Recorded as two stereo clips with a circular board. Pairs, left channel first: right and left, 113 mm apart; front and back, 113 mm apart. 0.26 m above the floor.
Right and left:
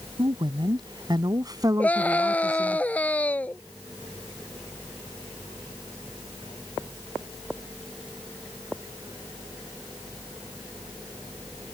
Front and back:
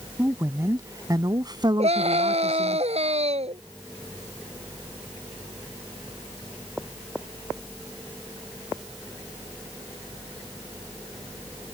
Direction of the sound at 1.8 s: 165° right.